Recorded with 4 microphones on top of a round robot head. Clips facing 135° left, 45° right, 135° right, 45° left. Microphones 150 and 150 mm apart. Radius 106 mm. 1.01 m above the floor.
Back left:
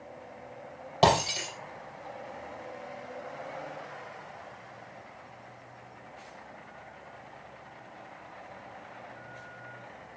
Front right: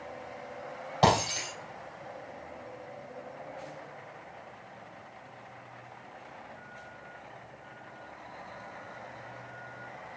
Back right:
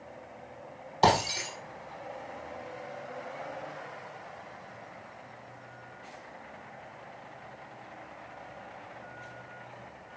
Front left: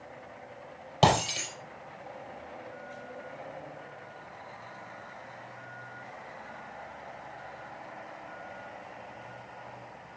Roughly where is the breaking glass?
Left.